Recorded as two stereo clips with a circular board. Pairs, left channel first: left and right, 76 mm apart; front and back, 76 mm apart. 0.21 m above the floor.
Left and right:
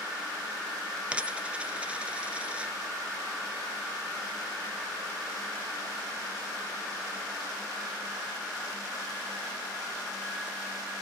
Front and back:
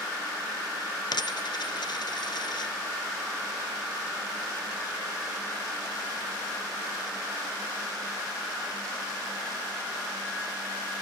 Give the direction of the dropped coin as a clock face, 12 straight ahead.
1 o'clock.